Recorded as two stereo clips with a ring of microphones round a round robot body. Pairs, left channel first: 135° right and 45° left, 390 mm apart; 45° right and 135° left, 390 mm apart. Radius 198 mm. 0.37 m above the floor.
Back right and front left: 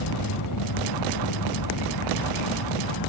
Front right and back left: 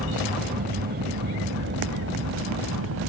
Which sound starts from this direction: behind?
An aircraft, at 0.0 s.